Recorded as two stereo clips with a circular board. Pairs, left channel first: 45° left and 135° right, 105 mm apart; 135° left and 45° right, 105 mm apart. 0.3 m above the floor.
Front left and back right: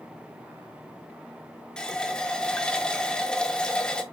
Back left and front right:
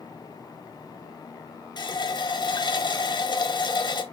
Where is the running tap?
125° left, 1.1 m.